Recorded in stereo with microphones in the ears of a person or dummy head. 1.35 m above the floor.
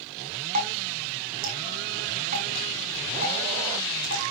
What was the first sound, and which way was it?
Dripping, 40° right (ahead or behind).